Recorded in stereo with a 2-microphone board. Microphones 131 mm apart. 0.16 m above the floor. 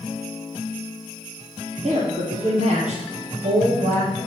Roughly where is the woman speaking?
Right.